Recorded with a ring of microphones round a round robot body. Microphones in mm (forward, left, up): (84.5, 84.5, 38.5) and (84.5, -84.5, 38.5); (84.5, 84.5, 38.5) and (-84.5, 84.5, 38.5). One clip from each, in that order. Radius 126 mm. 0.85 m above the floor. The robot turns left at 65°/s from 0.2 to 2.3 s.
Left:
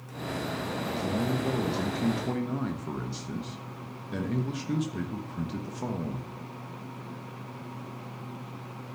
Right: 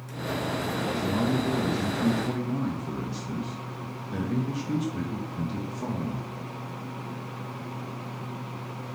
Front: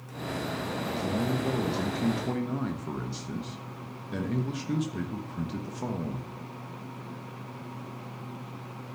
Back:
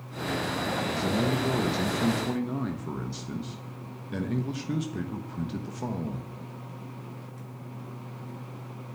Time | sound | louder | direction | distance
0.9 | a man speaking | right 2 dB, back 3 dB | 170° left | 1.2 m